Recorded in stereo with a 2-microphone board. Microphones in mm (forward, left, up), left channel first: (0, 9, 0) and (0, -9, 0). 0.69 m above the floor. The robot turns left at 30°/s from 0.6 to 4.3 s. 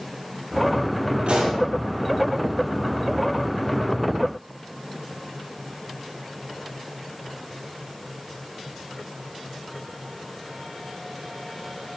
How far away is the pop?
About 7.5 m.